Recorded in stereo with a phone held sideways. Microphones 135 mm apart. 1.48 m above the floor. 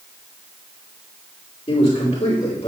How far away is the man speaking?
About 4 m.